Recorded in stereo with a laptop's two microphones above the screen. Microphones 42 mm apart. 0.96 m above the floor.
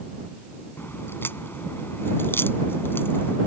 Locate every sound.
0.8 s a crack: 65° left (ahead or behind)